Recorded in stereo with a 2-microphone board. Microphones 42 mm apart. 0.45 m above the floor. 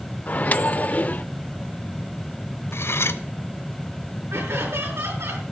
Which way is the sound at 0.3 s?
35° left (ahead or behind).